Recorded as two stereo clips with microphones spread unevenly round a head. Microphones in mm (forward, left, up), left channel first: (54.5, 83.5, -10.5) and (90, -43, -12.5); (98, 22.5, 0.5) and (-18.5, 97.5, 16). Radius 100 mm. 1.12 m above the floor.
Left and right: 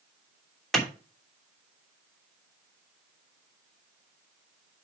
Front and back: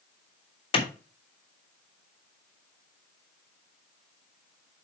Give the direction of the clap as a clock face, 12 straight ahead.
11 o'clock.